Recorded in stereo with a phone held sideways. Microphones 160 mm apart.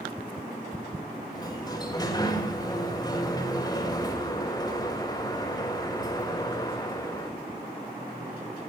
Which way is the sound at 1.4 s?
25° left (ahead or behind).